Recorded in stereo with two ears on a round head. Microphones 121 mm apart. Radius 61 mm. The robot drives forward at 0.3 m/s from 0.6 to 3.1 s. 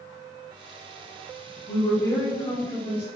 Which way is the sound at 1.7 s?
25° left (ahead or behind).